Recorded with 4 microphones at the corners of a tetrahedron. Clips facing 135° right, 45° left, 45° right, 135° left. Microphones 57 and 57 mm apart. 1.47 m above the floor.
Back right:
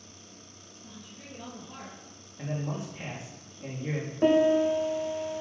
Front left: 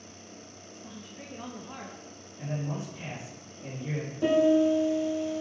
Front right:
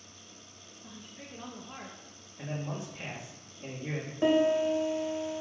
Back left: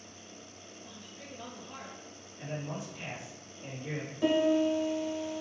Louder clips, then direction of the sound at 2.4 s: Even, front right 1 dB; 100° right.